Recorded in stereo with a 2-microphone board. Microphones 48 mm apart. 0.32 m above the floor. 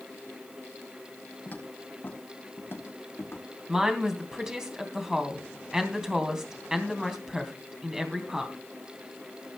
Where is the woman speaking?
15° right (ahead or behind), 3 m.